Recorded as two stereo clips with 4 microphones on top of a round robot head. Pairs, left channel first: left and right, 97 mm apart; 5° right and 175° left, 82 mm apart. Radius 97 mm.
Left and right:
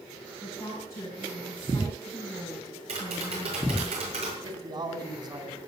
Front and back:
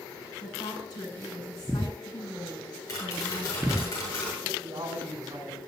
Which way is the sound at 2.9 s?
65° right.